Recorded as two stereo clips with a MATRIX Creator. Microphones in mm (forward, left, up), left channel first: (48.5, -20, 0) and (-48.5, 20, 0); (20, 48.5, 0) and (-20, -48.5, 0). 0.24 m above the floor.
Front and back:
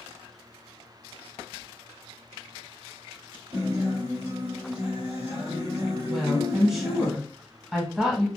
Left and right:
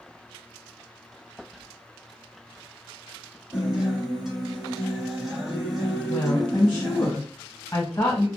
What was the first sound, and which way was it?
A guitar, 160° left.